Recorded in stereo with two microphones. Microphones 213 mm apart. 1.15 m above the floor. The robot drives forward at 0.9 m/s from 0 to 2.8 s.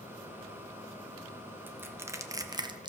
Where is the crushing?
10° right (ahead or behind), 1.2 m; by 2.9 s 20° right (ahead or behind), 0.6 m.